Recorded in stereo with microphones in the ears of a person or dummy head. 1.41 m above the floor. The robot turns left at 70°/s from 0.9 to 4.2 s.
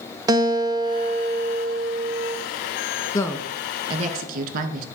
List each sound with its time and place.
0.3 s a guitar: 20° right, 1.1 m; by 2.4 s 125° right, 1.1 m
3.1 s a woman speaking: 25° left (ahead or behind), 1.7 m; by 4.8 s 50° right (ahead or behind), 1.7 m